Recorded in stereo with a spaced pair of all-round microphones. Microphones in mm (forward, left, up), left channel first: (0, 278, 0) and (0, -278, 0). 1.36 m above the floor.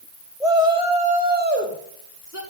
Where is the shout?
Centre (ahead or behind), 3 m; by 2.4 s 30° right (ahead or behind), 3 m.